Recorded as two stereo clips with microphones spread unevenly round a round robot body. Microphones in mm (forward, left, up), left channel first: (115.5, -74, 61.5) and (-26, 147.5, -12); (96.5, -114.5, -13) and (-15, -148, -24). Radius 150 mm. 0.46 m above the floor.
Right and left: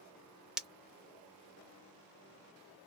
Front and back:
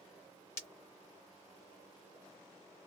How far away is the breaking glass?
About 0.5 m.